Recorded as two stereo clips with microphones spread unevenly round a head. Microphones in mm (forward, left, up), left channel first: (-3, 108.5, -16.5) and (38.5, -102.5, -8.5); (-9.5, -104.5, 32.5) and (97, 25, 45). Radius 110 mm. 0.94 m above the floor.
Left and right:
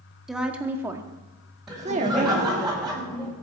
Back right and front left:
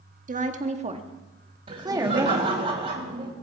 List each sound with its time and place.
0.3 s a woman speaking: 10° left, 1.8 m; by 2.5 s 30° right, 1.8 m
1.7 s laughter: 10° left, 4 m